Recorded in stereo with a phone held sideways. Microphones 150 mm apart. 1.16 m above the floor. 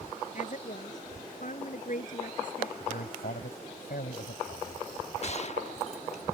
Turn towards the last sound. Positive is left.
turn(degrees=50)  # may be behind; listen again after turning